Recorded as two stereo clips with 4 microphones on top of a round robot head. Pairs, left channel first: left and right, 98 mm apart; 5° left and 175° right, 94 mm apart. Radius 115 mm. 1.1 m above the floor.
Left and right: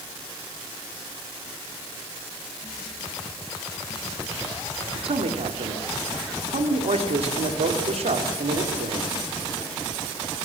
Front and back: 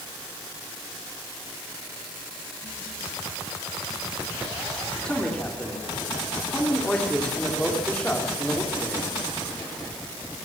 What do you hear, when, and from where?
5.0 s a man speaking: 80° right, 3 m